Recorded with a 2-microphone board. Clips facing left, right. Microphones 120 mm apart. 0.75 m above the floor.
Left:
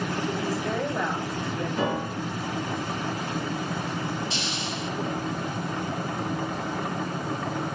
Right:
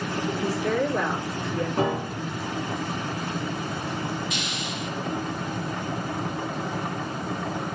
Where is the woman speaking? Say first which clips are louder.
Right 3 dB; 80° right, 5.5 m.